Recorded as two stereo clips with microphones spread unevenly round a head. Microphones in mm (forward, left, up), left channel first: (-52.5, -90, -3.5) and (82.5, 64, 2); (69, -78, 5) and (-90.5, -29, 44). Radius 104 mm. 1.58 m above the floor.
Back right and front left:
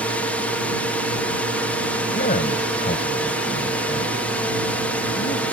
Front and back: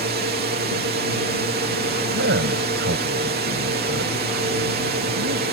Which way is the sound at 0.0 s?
145° left.